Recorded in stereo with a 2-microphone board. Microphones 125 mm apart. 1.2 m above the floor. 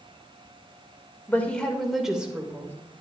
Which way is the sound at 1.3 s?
15° left (ahead or behind).